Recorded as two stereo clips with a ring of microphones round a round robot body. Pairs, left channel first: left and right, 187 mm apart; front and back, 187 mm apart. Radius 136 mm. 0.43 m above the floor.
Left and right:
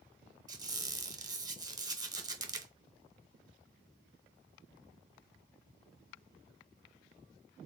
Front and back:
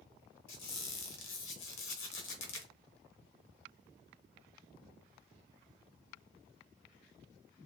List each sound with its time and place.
0.5 s a squeak: 20° right, 1.2 m